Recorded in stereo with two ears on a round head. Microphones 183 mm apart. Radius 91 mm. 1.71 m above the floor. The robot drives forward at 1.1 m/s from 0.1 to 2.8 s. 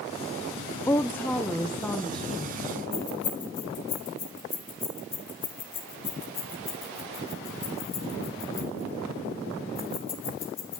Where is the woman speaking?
15° left (ahead or behind), 0.6 m; by 2.7 s 5° left (ahead or behind), 2.5 m.